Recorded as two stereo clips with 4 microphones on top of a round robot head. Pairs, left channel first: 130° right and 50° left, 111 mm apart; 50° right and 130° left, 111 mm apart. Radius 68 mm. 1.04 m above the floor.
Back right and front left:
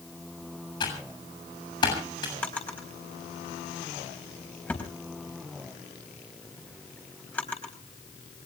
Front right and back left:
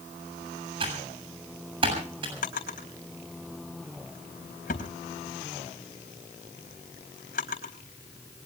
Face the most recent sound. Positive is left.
turn(degrees=-55)